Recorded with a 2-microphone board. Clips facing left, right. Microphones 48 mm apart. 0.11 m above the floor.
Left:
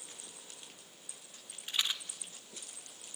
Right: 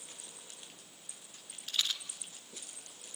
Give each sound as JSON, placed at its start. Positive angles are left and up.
{"t": 1.7, "sound": "a rattle", "side_deg": 20, "distance_m": 1.4}